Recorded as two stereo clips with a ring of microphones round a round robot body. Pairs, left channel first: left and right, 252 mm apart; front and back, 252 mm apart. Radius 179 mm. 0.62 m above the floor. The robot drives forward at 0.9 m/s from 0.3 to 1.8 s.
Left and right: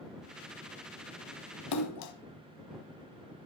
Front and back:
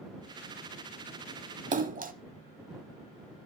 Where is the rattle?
No rattle in this recording.